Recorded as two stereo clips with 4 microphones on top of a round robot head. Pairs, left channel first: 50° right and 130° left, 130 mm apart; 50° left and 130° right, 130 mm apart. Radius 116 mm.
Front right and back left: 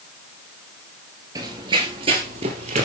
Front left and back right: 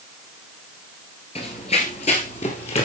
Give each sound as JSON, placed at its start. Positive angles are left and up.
{"t": 1.4, "sound": "running footsteps", "azimuth_deg": 80, "distance_m": 1.8}